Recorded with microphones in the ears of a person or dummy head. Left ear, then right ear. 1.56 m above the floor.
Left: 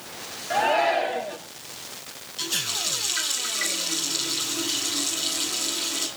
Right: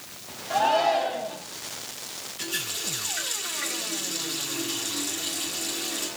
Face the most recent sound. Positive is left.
turn(degrees=50)  # may be behind; listen again after turning